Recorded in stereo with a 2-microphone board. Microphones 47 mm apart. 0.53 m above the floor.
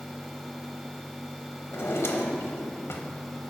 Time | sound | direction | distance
1.7 | a drawer | 70° left (ahead or behind) | 0.9 m